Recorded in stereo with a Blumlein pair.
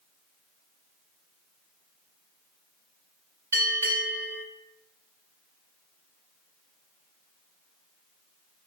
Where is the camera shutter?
I don't hear a camera shutter.